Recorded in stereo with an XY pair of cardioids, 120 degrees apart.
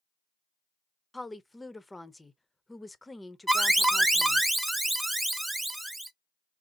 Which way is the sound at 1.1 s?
10° left.